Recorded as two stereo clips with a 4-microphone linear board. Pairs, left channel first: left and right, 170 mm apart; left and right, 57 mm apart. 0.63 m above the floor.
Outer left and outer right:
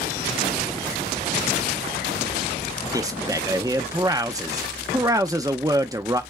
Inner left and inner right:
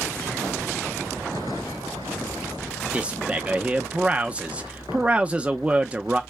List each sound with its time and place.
2.9 s a man speaking: 20° right (ahead or behind), 0.5 m